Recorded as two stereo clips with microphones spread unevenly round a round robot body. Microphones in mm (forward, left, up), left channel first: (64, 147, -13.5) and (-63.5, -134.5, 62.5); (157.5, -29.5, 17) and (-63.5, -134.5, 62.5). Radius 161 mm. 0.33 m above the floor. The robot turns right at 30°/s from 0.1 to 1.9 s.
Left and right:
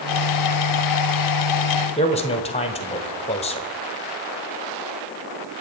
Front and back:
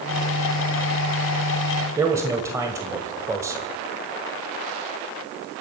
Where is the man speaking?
120° left, 1.5 m.